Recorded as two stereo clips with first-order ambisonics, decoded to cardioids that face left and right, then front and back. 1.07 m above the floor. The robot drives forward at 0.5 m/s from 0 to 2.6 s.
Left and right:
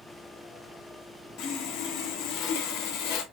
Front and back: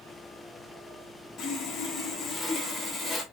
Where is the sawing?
60° left, 1.3 m; by 3.2 s 85° left, 1.2 m.